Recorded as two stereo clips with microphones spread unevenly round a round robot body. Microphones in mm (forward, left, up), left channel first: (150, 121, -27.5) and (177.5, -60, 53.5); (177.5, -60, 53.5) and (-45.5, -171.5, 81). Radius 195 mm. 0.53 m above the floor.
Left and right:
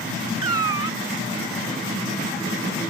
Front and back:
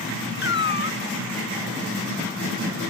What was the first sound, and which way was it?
A cat meowing, 20° right.